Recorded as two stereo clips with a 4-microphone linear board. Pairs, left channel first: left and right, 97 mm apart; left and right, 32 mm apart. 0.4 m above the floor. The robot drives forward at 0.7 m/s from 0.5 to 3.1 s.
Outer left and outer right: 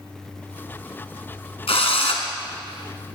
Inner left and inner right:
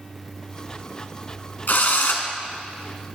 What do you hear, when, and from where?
1.7 s a drill: 80° left, 1.5 m